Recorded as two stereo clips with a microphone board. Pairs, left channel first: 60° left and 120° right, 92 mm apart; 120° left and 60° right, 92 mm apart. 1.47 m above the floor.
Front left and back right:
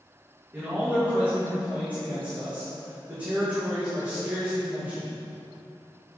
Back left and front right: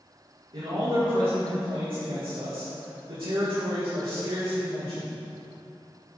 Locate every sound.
0.5 s a man speaking: 45° right, 2.5 m